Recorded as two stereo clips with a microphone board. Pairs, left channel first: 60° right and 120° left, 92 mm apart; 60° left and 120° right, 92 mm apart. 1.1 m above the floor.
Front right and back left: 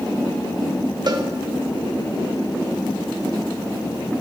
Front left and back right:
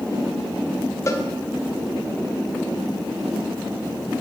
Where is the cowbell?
105° left, 0.9 m.